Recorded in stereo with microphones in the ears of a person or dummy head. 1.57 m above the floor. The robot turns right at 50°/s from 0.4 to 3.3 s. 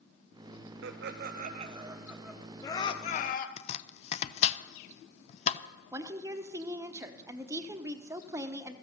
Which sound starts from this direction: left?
Chopping, at 3.6 s.